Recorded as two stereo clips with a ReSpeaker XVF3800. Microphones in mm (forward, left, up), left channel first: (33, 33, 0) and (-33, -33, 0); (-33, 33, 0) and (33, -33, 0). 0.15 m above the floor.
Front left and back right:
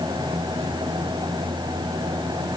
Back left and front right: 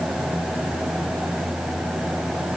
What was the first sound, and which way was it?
Only background noise.